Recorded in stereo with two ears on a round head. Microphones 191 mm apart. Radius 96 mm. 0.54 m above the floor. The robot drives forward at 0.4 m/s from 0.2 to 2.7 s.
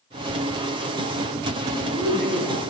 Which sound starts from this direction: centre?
A woman speaking, at 1.7 s.